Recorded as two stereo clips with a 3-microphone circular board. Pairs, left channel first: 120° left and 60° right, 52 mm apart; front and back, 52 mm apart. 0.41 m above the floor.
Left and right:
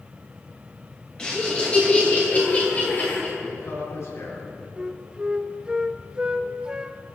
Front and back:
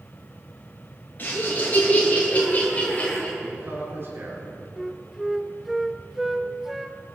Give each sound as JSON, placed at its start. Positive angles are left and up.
{"t": 1.2, "sound": "laughter", "azimuth_deg": 50, "distance_m": 6.5}
{"t": 3.4, "sound": "a man speaking", "azimuth_deg": 140, "distance_m": 5.0}
{"t": 4.8, "sound": "a flute", "azimuth_deg": -100, "distance_m": 0.7}